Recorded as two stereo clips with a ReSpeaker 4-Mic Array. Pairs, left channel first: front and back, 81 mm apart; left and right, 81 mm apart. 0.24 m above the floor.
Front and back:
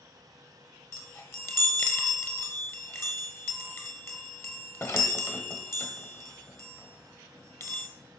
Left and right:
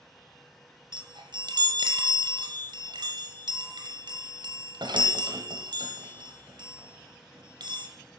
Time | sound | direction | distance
0.9 | a chime | 60° right | 1.6 m